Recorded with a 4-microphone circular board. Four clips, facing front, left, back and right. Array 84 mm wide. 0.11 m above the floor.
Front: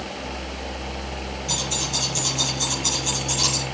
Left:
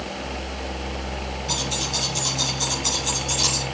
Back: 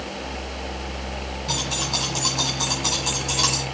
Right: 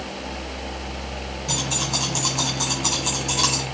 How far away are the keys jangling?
About 5.5 m.